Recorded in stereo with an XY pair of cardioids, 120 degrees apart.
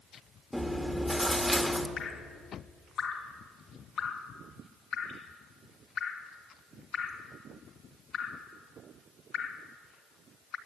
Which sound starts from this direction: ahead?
Chewing, at 0.5 s.